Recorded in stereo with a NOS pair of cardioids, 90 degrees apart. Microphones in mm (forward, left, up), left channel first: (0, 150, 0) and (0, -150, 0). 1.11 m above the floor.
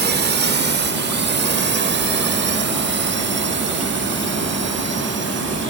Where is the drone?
35° right; by 5.7 s 40° right.